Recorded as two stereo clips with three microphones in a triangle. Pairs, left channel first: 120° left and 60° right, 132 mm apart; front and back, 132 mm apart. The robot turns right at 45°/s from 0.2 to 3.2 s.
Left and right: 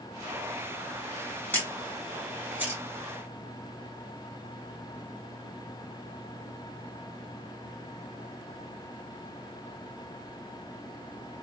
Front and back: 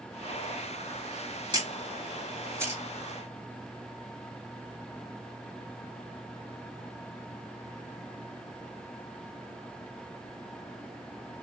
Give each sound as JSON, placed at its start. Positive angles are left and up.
{"t": 1.5, "sound": "a camera shutter", "azimuth_deg": -175, "distance_m": 1.7}